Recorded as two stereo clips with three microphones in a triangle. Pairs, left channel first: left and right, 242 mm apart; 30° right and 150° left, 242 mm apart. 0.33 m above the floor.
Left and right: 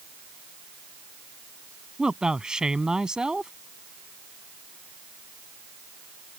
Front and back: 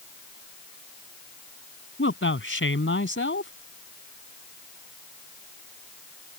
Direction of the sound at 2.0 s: 5° right.